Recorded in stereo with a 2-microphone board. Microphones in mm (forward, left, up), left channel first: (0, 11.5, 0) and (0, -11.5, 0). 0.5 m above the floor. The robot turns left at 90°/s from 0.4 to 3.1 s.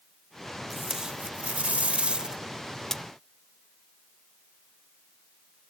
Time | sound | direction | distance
0.7 | tape being pulled | straight ahead | 0.7 m